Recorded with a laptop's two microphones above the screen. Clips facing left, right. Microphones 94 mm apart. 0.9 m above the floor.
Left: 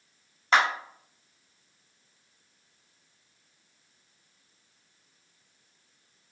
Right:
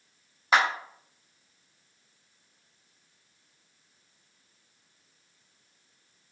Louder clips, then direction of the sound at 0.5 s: Even; 5° right (ahead or behind).